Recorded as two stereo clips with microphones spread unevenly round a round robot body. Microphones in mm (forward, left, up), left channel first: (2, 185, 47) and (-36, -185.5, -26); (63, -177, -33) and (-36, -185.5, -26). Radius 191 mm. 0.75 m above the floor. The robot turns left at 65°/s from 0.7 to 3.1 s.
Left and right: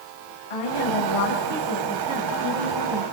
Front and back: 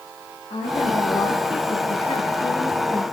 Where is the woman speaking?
75° left, 6 m; by 3.0 s 75° right, 6 m.